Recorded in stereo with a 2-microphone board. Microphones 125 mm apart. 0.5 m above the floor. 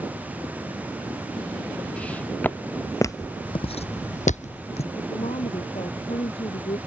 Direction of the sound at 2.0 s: 10° left (ahead or behind).